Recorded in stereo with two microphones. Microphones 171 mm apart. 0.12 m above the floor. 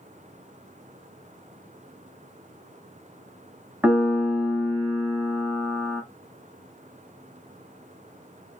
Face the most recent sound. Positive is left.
turn(degrees=-5)  # may be behind; listen again after turning